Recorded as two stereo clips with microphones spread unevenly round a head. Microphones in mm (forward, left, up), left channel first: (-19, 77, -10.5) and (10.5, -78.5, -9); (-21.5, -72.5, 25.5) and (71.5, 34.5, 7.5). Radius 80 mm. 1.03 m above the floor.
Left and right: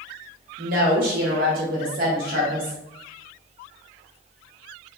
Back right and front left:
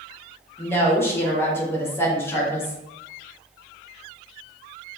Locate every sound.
0.6 s a woman speaking: 55° right, 1.1 m